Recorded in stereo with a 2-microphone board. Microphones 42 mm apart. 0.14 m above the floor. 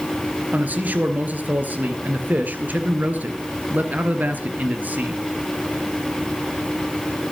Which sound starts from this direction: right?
A man speaking, at 0.5 s.